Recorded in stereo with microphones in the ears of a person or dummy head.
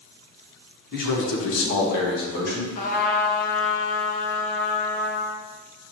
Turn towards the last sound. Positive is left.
turn(degrees=55)  # may be behind; listen again after turning